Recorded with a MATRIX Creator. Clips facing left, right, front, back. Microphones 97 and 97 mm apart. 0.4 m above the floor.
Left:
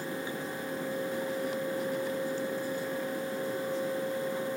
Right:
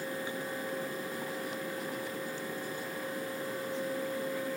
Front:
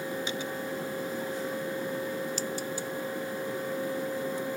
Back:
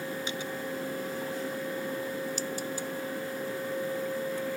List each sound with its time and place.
Only background noise.